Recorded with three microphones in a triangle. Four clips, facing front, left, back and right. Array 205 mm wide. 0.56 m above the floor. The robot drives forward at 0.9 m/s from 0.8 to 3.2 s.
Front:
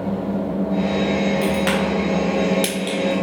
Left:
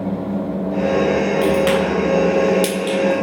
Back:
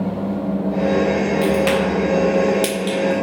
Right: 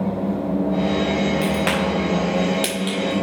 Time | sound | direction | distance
1.4 | a crack | 65° right | 3 m